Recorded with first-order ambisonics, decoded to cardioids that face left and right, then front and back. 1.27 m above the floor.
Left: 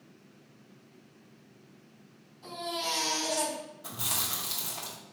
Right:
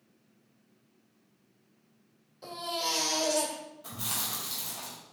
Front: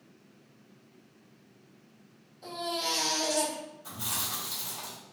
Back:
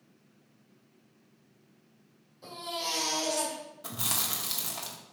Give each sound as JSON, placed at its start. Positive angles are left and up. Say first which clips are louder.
{"t": 2.4, "sound": "a baby crying", "louder": "right 1 dB, front 3 dB", "azimuth_deg": -90, "distance_m": 2.5}
{"t": 3.8, "sound": "chewing", "louder": "left 2 dB, back 3 dB", "azimuth_deg": 170, "distance_m": 1.3}